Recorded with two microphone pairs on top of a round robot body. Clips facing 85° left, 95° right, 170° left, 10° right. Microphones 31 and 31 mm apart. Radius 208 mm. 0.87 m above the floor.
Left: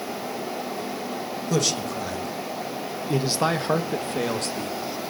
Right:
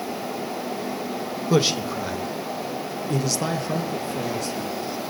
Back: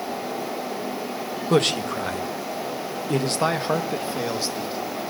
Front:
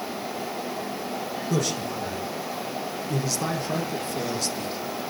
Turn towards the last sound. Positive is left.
turn(degrees=105)